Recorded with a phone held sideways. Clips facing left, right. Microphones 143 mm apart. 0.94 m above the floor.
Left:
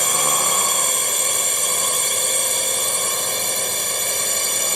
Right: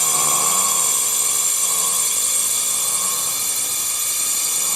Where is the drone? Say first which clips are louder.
Left 2 dB; 70° left (ahead or behind).